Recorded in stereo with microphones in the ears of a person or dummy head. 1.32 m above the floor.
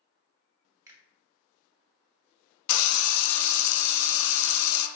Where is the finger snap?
10° right (ahead or behind), 0.8 m.